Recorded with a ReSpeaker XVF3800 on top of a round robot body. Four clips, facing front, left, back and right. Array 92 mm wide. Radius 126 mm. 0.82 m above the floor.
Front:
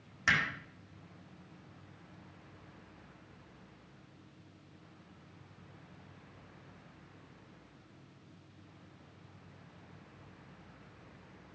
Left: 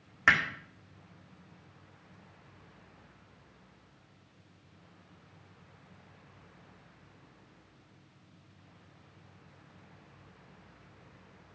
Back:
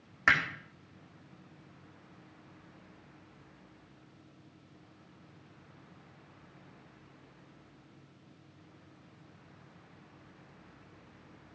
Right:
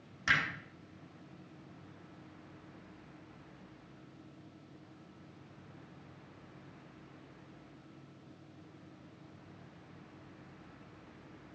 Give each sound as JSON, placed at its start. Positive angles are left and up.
{"t": 0.3, "sound": "hammering", "azimuth_deg": 130, "distance_m": 1.8}